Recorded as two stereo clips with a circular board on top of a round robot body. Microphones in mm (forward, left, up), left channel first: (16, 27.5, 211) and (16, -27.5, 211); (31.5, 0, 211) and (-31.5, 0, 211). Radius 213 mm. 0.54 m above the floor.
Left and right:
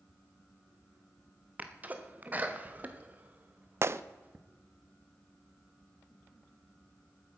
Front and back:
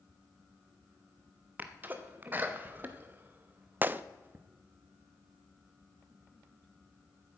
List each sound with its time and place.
1.6 s a sneeze: 135° right, 1.2 m
3.8 s a gunshot: 120° right, 0.6 m